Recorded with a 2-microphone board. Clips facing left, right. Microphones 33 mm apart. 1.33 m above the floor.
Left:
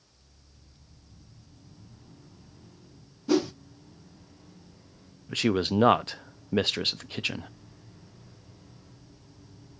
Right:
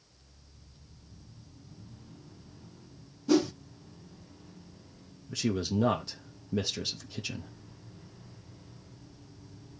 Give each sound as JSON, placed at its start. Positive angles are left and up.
{"t": 3.3, "sound": "a whoosh", "side_deg": 10, "distance_m": 0.5}
{"t": 5.3, "sound": "a man speaking", "side_deg": 50, "distance_m": 0.5}